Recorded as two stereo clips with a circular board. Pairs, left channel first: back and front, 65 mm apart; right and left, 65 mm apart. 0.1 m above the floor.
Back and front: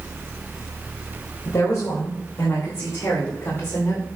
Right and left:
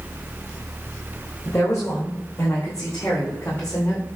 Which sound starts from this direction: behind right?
A woman speaking, at 1.4 s.